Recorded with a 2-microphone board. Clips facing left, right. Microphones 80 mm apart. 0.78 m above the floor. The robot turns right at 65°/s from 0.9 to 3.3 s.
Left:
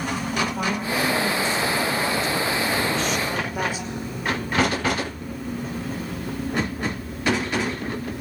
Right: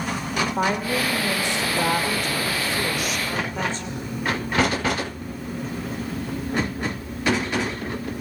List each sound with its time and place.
0.6 s a woman speaking: 145° right, 2.5 m; by 4.1 s 10° left, 2.5 m